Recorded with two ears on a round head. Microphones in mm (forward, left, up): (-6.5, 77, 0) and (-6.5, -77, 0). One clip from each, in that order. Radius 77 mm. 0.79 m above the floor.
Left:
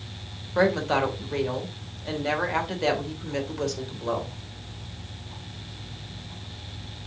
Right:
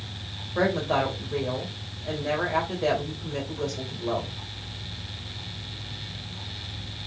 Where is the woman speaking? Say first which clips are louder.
Left 2 dB; 65° left (ahead or behind), 3 m.